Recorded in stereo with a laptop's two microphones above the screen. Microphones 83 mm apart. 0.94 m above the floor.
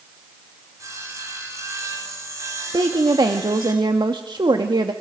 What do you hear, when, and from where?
0.8 s sawing: 40° right (ahead or behind), 8 m
2.7 s a woman speaking: 65° right (ahead or behind), 1.6 m